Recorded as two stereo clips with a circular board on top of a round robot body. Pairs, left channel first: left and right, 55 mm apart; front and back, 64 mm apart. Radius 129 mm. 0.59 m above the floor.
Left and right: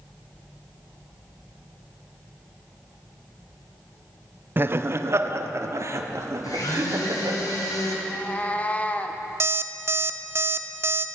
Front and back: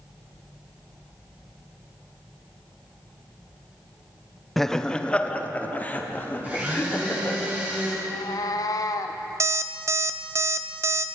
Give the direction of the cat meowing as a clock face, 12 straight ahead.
11 o'clock.